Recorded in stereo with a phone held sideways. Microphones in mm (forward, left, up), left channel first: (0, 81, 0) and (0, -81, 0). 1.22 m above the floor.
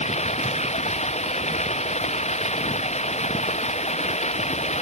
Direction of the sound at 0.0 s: 45° left (ahead or behind).